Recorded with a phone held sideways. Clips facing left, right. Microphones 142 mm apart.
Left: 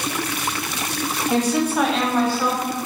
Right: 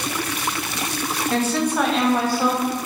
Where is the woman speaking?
15° left (ahead or behind), 0.7 m; by 2.8 s 25° right (ahead or behind), 0.6 m.